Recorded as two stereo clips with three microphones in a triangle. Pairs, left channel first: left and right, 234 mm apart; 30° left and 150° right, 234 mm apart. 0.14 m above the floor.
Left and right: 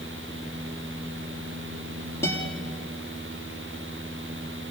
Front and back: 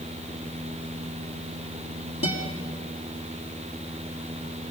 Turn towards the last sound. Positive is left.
turn(degrees=10)